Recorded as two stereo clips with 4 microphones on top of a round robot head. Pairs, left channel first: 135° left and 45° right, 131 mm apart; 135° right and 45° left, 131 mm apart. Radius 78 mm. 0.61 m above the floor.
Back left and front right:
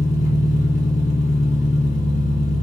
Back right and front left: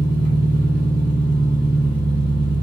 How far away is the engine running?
About 2.5 m.